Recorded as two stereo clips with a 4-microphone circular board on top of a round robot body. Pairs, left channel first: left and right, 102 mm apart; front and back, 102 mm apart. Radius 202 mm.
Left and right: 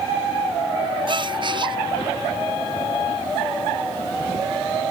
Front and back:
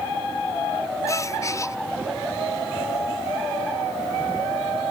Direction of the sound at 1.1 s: 55° right.